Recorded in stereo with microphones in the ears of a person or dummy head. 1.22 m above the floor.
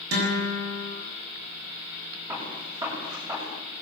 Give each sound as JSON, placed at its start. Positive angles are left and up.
{"t": 0.1, "sound": "a guitar", "side_deg": -75, "distance_m": 7.0}
{"t": 2.3, "sound": "a gunshot", "side_deg": -25, "distance_m": 8.0}